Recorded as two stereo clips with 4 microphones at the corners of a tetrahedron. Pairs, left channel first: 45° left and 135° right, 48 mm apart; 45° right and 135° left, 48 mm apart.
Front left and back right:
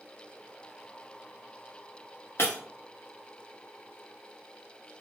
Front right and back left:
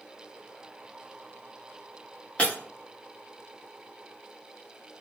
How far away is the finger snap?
I don't hear a finger snap.